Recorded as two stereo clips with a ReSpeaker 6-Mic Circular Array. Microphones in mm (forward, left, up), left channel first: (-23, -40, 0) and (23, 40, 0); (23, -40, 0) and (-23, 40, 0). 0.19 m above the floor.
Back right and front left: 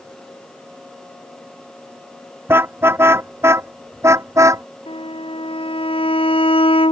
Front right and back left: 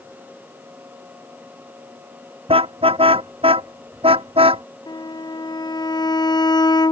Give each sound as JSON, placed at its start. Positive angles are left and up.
{"t": 2.5, "sound": "a car horn", "azimuth_deg": 125}
{"t": 4.9, "sound": "a violin", "azimuth_deg": -100}